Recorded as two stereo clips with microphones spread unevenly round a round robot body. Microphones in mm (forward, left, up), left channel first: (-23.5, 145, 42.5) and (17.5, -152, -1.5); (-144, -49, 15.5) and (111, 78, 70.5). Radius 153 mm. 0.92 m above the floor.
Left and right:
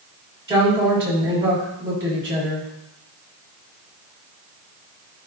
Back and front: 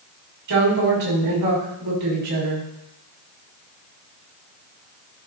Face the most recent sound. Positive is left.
turn(degrees=-5)